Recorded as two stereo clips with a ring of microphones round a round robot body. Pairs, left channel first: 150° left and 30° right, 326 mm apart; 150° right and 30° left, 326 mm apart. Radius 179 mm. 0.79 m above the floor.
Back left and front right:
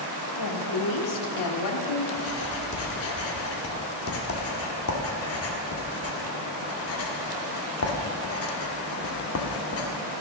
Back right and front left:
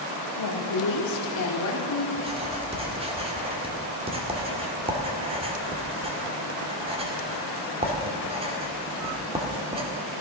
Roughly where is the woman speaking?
Behind.